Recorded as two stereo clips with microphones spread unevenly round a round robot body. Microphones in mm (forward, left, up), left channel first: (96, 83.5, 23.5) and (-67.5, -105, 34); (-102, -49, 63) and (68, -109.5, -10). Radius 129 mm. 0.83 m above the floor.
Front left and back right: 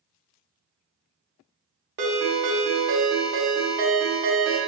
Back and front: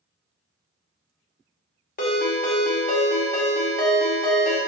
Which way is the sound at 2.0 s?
Straight behind.